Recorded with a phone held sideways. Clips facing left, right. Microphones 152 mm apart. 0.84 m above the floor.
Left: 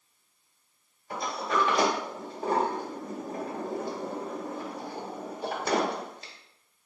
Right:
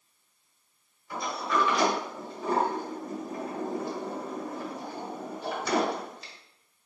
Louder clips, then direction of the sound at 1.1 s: Even; 45° left (ahead or behind).